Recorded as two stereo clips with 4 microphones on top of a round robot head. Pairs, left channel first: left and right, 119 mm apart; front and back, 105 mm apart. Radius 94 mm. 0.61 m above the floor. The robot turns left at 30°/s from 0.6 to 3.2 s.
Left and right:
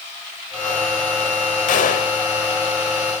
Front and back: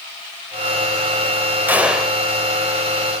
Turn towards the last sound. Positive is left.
turn(degrees=65)